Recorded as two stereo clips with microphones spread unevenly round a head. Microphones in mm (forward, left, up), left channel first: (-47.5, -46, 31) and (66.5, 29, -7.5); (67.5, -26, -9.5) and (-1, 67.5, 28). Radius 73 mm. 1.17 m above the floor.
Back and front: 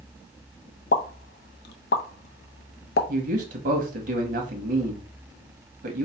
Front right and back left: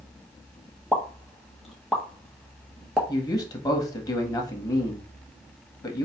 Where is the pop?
145° right, 0.7 m.